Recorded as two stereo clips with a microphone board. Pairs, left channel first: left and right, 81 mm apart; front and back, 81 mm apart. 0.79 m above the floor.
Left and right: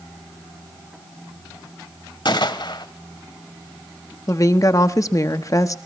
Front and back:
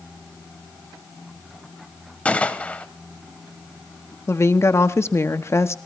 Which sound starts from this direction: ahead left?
A woman speaking, at 4.3 s.